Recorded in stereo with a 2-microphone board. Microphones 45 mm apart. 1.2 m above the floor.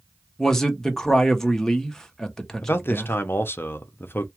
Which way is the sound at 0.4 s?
10° left (ahead or behind).